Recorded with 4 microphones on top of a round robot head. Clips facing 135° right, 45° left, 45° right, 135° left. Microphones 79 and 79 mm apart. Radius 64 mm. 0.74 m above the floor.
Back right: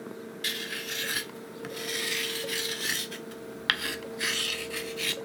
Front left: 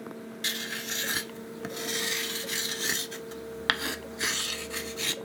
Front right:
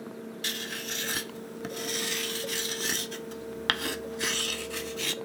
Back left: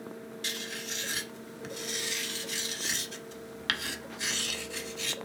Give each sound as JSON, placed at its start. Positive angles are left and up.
{"t": 0.4, "sound": "writing", "azimuth_deg": -15, "distance_m": 0.6}